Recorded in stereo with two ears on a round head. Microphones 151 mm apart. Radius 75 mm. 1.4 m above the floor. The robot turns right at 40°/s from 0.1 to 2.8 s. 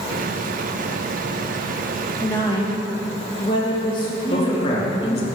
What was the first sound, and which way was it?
A woman speaking, 5° left (ahead or behind).